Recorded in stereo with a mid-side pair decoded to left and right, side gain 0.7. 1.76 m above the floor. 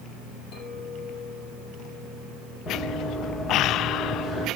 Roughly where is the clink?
Ahead left.